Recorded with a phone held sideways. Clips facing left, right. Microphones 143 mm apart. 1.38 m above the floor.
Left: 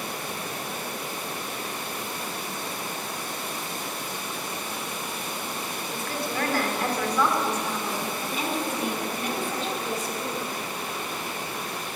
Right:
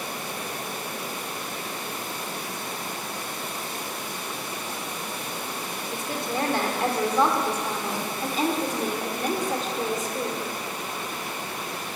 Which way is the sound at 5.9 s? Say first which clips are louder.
Right 2 dB; 20° right (ahead or behind).